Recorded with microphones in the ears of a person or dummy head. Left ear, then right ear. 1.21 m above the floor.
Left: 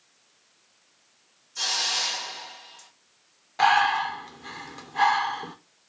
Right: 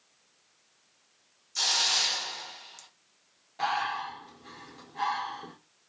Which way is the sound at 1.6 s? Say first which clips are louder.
Even; 35° right (ahead or behind).